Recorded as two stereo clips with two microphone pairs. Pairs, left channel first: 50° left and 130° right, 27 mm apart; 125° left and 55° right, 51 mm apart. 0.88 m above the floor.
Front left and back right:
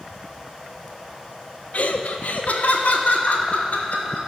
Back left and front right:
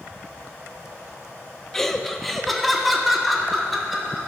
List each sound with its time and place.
1.7 s laughter: 45° left, 1.0 m; by 4.3 s 35° left, 3 m